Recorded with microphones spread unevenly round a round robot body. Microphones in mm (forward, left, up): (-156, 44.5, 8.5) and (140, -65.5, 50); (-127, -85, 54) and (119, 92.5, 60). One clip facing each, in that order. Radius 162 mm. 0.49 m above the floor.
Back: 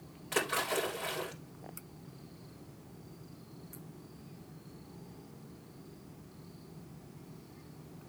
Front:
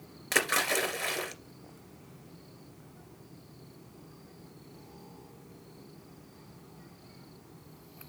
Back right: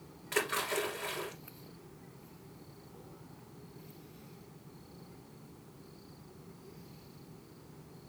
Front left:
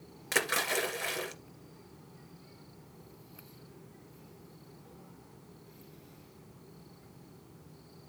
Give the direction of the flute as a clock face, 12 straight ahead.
No flute in this recording.